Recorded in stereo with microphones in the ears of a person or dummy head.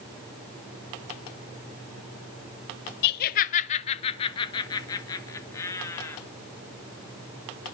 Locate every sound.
3.0 s laughter: 60° left (ahead or behind), 0.8 m; by 6.2 s 15° left (ahead or behind), 3 m